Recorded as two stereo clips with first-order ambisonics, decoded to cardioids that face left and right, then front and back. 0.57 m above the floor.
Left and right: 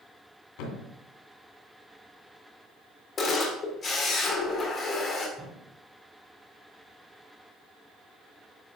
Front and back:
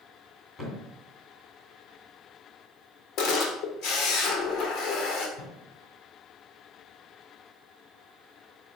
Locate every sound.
0.6 s a thud: 80° left, 2.5 m
3.2 s a camera shutter: 30° left, 1.6 m
5.4 s a thud: 5° right, 2 m